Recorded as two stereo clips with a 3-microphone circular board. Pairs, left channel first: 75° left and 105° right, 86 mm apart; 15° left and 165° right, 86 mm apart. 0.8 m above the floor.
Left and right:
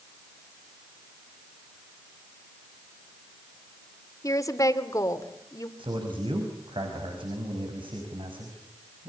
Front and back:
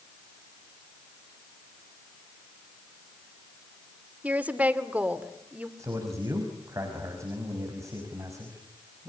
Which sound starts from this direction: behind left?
A woman speaking, at 4.2 s.